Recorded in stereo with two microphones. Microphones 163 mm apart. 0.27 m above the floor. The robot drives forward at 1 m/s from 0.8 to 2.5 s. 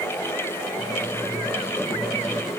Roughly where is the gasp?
No gasp in this recording.